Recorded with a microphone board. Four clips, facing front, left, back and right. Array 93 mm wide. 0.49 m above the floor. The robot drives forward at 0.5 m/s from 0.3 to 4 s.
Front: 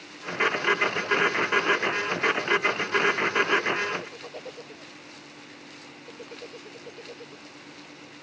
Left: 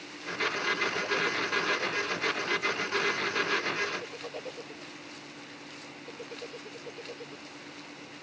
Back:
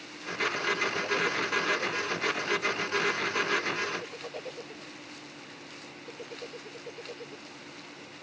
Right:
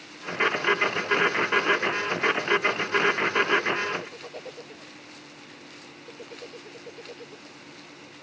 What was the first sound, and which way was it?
Only background noise.